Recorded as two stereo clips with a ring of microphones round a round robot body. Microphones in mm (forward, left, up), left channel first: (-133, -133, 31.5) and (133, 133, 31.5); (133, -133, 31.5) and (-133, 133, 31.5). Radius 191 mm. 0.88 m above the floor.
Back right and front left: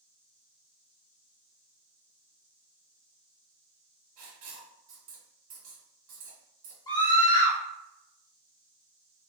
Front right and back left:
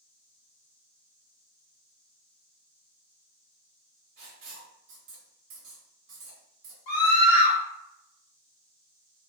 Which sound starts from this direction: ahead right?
A scream, at 6.9 s.